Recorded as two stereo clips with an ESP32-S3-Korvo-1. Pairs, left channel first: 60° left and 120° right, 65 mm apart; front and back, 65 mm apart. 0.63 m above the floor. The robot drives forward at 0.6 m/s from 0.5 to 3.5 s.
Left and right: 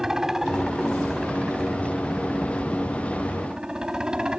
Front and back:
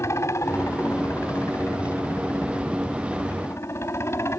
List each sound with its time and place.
0.0 s a helicopter: 40° right; by 4.4 s 45° right